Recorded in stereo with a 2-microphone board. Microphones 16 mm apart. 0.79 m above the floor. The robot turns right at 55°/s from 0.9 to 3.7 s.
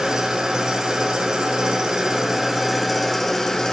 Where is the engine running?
115° right, 0.9 m; by 3.7 s 35° left, 0.9 m.